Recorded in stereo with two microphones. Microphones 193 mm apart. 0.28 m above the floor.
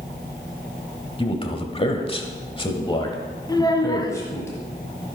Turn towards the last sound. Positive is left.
turn(degrees=20)  # may be behind; listen again after turning